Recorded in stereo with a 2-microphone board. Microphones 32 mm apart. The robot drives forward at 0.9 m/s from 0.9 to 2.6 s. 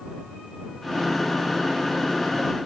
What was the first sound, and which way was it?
Only background noise.